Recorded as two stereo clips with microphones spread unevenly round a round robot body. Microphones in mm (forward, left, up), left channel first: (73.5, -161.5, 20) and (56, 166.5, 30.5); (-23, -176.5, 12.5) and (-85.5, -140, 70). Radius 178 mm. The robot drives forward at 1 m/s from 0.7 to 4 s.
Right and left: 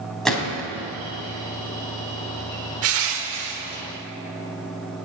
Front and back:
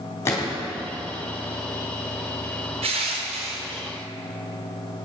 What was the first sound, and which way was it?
A gunshot, straight ahead.